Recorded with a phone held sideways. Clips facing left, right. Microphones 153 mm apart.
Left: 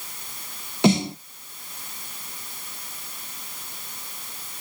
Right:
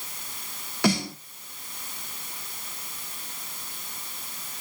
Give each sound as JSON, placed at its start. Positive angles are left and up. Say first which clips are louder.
{"t": 0.8, "sound": "a snare drum", "louder": "left 5 dB", "side_deg": 20, "distance_m": 0.7}